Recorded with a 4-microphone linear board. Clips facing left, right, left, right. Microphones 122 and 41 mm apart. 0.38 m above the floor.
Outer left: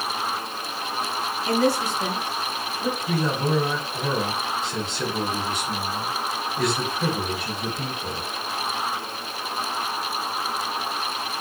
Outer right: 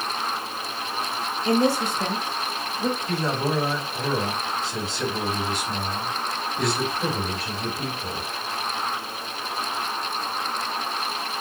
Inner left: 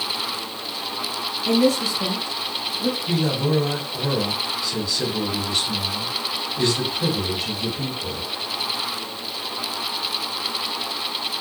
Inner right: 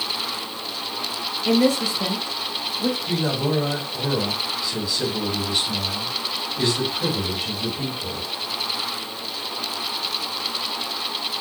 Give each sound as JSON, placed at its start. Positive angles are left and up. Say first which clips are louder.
{"t": 1.4, "sound": "a woman speaking", "louder": "outer right 1 dB, even", "side_deg": -25, "distance_m": 1.4}
{"t": 3.0, "sound": "a man speaking", "louder": "outer left 1 dB, inner left 1 dB", "side_deg": -5, "distance_m": 2.5}